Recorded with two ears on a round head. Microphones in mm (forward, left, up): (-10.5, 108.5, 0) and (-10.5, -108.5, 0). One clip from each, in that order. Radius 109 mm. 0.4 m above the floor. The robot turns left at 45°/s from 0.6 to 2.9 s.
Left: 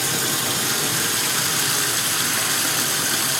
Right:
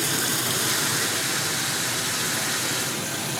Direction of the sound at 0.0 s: Straight behind.